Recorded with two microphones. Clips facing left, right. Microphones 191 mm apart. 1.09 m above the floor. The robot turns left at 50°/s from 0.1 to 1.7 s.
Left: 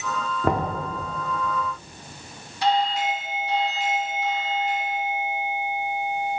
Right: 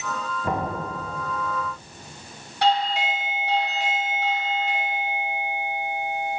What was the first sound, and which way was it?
Knocking, 70° left (ahead or behind).